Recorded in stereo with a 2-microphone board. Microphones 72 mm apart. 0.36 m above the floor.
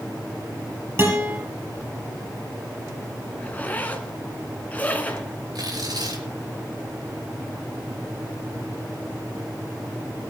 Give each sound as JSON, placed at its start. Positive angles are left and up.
{"t": 1.0, "sound": "a guitar", "side_deg": -30, "distance_m": 8.5}
{"t": 3.4, "sound": "a zipper", "side_deg": 20, "distance_m": 1.8}
{"t": 5.5, "sound": "tearing paper", "side_deg": -65, "distance_m": 5.0}